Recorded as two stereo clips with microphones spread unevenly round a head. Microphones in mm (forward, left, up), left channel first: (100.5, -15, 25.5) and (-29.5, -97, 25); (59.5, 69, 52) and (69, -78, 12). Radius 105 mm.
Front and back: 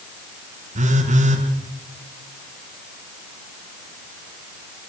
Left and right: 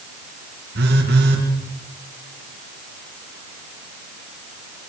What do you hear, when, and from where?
0.8 s a phone buzzing: 110° right, 5.5 m